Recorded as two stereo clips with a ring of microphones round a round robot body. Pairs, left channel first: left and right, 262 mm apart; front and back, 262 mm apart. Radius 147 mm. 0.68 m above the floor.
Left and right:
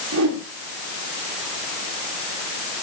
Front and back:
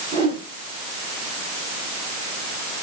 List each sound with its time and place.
0.1 s a whoosh: 115° right, 7 m